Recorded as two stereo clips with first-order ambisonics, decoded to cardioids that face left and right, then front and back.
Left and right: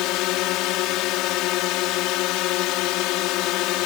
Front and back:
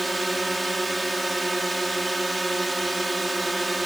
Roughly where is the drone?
Left.